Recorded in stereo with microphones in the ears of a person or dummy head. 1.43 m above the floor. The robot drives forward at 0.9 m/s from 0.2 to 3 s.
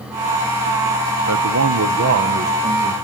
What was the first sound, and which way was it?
A man speaking, 85° right.